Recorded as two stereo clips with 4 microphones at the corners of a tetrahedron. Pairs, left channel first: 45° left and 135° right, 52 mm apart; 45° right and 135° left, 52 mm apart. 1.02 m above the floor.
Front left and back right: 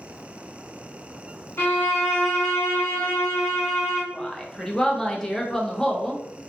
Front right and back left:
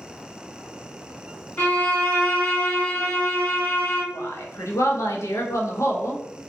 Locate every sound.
1.6 s a violin: 10° left, 1.6 m
4.1 s a woman speaking: 30° right, 0.7 m